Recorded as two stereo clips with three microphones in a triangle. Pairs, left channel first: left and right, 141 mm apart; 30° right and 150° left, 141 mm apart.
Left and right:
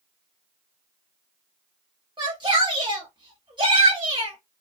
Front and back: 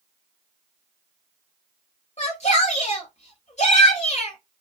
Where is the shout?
40° right, 2.5 m.